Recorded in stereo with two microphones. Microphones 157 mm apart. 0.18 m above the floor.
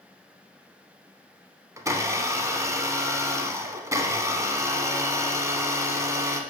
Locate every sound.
1.8 s a blender: 20° right (ahead or behind), 1.1 m